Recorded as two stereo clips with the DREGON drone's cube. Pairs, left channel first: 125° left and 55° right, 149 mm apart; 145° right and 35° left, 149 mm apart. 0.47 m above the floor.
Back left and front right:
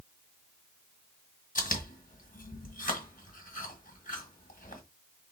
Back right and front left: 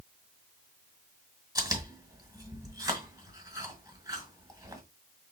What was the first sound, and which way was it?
Chewing, 100° left.